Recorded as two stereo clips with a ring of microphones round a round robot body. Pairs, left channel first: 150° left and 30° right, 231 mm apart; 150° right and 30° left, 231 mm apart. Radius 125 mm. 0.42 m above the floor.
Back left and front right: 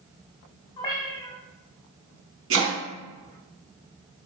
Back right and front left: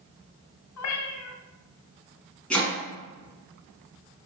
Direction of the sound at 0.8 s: 135° right.